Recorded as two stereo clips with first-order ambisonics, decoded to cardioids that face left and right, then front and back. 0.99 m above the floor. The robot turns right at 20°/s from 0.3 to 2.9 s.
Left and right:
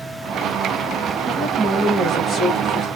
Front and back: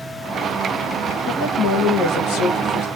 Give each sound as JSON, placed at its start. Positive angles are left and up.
{"t": 1.3, "sound": "a woman speaking", "azimuth_deg": -25, "distance_m": 1.7}